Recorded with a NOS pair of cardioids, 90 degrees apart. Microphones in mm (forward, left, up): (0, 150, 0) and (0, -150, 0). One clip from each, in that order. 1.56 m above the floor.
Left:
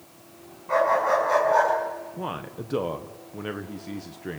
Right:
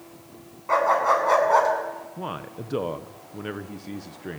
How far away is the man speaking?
About 1.3 m.